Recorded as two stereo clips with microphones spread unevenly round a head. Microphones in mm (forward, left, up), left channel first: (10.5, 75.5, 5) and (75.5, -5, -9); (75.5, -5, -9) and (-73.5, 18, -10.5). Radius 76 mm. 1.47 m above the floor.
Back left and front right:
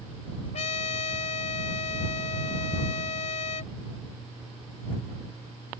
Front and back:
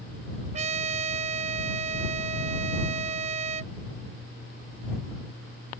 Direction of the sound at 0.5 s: 130° left.